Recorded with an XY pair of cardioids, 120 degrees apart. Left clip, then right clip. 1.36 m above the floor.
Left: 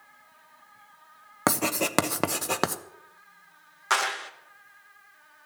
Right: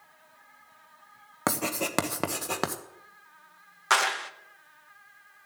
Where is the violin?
I don't hear a violin.